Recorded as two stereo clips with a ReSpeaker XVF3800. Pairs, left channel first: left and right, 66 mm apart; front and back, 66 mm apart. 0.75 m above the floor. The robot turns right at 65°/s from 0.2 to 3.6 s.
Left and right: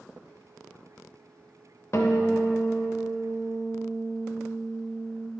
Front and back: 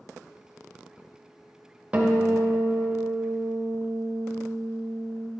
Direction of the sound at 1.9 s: 115° left.